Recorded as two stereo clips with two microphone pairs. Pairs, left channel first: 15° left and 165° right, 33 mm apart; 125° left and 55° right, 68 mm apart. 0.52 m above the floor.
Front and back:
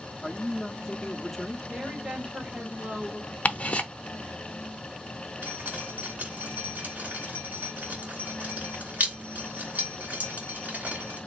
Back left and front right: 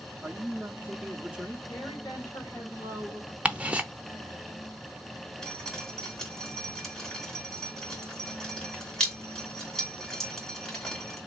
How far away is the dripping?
About 2 m.